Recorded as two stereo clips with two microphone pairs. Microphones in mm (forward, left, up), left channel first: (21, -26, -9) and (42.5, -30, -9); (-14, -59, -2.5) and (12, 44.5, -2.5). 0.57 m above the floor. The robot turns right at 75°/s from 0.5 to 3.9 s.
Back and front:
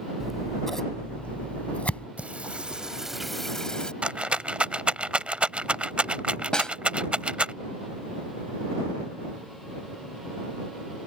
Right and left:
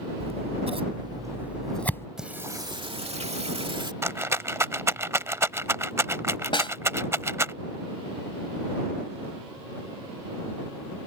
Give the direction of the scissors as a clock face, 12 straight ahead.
9 o'clock.